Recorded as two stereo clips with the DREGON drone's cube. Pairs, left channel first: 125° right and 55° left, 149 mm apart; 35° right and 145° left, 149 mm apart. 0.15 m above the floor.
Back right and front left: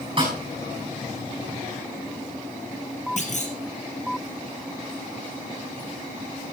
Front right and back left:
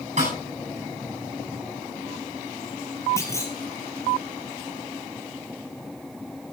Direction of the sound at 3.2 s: 105° right.